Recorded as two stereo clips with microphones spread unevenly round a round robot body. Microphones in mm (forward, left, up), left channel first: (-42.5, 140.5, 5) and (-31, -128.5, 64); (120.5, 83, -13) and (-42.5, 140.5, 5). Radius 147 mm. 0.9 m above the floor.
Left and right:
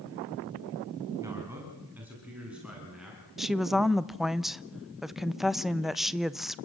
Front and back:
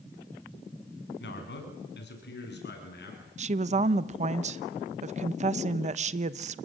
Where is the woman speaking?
165° left, 0.8 m.